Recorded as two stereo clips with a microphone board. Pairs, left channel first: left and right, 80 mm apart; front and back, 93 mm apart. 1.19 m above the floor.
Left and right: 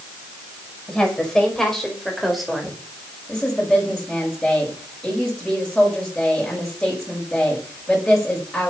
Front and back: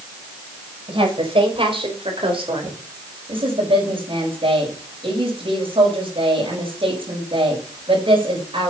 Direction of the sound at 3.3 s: 170° left.